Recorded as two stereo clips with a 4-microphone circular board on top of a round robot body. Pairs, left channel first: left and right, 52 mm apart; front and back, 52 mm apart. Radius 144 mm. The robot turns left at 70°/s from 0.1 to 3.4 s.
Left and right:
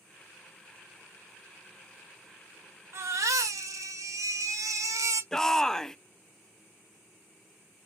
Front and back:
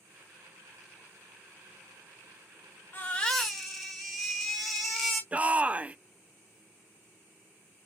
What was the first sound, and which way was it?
A baby crying, 55° right.